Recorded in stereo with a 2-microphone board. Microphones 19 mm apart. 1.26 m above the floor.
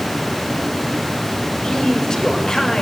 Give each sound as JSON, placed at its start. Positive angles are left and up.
{"t": 1.6, "sound": "a man speaking", "side_deg": 45, "distance_m": 6.0}